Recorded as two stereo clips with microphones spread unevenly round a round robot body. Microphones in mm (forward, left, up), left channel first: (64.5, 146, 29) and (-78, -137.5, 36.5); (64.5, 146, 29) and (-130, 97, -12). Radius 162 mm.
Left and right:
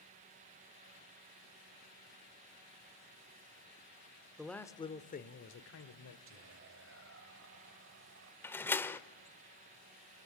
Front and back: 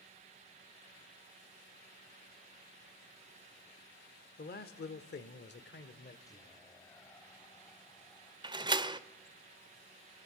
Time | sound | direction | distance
4.4 | a man speaking | 30° right | 1.3 m
6.3 | whispering | 70° right | 2 m
8.4 | a door slam | 145° left | 1.0 m